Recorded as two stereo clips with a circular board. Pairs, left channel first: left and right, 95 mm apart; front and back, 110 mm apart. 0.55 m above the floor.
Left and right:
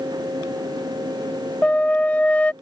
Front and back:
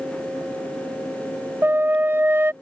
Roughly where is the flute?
Behind left.